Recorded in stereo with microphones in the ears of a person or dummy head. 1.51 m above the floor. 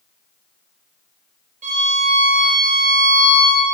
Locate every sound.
1.6 s a violin: 40° right (ahead or behind), 3 m